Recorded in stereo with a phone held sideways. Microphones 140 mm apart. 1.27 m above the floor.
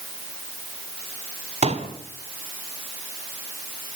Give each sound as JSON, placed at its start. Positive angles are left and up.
{"t": 1.6, "sound": "a pop", "side_deg": -50, "distance_m": 2.5}